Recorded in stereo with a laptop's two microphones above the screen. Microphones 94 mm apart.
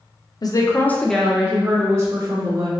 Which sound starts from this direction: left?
A woman speaking, at 0.4 s.